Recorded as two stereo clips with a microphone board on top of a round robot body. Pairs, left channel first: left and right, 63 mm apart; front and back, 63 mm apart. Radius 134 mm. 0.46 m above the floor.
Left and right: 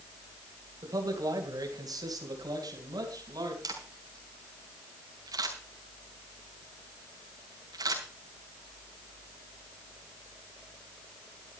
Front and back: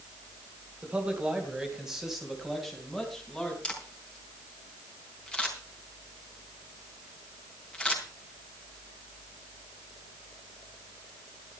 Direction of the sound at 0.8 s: 110° right.